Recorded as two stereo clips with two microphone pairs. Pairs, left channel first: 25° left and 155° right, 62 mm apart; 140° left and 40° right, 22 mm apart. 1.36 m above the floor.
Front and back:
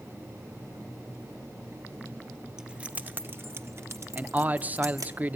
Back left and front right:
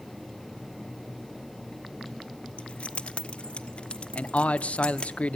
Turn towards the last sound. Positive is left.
turn(degrees=145)